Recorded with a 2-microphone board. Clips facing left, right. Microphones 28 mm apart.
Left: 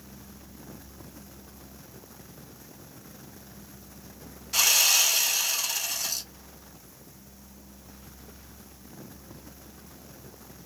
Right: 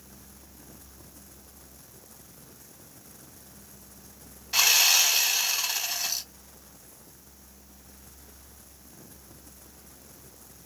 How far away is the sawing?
About 1.1 m.